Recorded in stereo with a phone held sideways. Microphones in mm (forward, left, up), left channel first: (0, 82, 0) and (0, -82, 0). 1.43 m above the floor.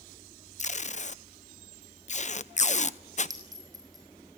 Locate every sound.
0.6 s tape being pulled: 45° left (ahead or behind), 0.9 m
3.3 s a clink: 25° right (ahead or behind), 5.5 m